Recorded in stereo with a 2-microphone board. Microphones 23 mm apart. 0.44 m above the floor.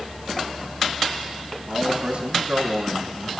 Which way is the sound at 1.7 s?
55° right (ahead or behind).